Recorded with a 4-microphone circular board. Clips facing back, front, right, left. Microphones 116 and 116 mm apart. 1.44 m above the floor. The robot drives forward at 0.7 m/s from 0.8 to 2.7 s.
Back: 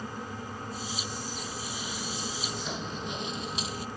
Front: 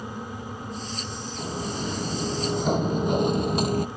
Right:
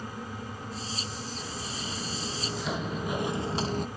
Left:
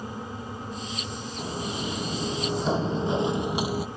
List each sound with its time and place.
1.4 s footsteps: 40° left; by 3.9 s 5° left